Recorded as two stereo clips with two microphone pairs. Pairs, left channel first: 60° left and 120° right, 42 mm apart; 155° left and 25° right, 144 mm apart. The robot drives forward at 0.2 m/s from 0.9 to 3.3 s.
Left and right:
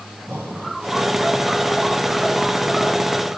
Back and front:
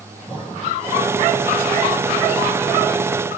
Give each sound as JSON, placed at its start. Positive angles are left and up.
{"t": 0.3, "sound": "breathing", "azimuth_deg": -150, "distance_m": 6.0}